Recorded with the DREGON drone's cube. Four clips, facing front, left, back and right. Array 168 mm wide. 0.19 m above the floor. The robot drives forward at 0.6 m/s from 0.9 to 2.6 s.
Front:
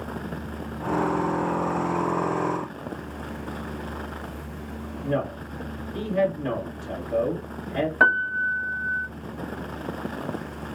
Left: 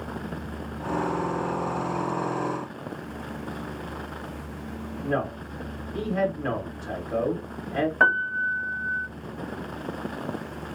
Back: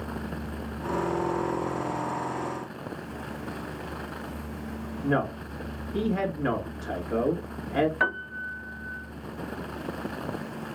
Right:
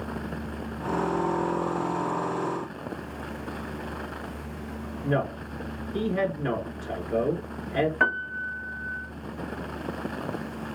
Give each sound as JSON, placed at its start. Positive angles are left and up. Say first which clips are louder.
{"t": 5.0, "sound": "a man speaking", "louder": "right 1 dB, even", "azimuth_deg": 170, "distance_m": 2.0}
{"t": 8.0, "sound": "a piano", "louder": "left 4 dB, front 8 dB", "azimuth_deg": 30, "distance_m": 0.6}